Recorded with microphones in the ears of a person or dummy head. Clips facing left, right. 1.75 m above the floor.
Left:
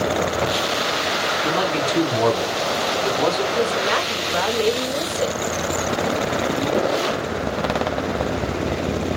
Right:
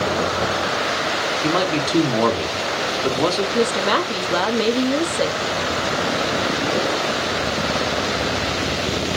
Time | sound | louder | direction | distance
1.4 | a man speaking | right 2 dB | 70° right (ahead or behind) | 1.6 m
3.5 | a woman speaking | right 2 dB | 50° right (ahead or behind) | 0.9 m